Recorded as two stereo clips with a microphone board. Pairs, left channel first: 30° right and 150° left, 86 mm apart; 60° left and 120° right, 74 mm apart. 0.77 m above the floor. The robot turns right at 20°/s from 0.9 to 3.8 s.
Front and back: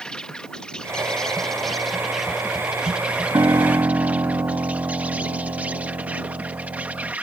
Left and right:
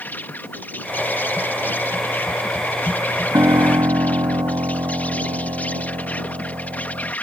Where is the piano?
165° right; by 7.1 s 155° right.